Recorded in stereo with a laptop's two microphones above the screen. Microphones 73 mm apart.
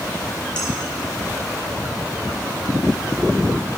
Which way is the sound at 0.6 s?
15° left (ahead or behind).